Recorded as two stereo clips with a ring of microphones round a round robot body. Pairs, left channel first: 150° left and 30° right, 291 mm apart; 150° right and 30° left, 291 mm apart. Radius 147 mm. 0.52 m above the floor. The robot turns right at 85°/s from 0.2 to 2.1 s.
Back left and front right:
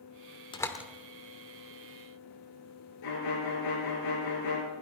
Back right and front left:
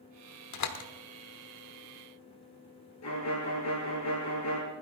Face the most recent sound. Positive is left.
turn(degrees=170)